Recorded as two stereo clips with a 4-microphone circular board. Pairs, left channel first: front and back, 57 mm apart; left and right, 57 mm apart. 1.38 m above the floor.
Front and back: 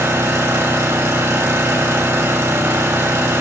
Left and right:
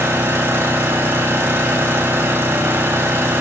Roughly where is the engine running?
Behind right.